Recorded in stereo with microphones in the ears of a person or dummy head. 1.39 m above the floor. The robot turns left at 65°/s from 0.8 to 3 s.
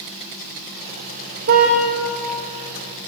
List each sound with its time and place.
1.5 s a car horn: 55° right (ahead or behind), 2 m; by 1.8 s 40° right (ahead or behind), 2 m